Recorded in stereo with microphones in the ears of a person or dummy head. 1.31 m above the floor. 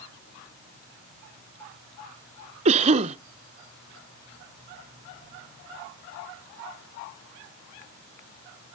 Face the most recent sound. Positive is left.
turn(degrees=-30)  # may be behind; listen again after turning